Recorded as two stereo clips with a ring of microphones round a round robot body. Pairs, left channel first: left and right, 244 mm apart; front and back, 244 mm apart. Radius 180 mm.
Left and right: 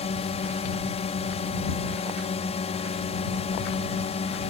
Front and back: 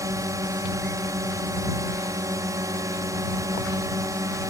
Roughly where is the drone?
Behind left.